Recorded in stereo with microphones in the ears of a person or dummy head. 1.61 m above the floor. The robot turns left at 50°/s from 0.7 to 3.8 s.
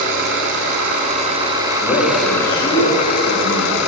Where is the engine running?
110° right, 6.5 m; by 3.9 s 95° left, 6.5 m.